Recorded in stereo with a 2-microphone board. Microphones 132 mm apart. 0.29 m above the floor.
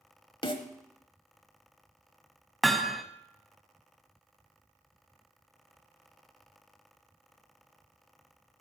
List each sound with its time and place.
0.4 s a snare drum: 40° left (ahead or behind), 1.1 m
2.6 s hammering: centre (ahead or behind), 0.7 m